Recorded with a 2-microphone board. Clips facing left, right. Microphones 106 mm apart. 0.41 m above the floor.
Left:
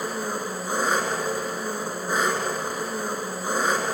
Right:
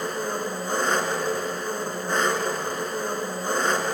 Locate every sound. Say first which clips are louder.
0.0 s an engine running: right 1 dB; 10° left (ahead or behind), 2.5 m